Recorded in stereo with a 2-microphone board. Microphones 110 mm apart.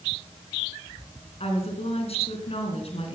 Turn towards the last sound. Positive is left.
turn(degrees=70)  # may be behind; listen again after turning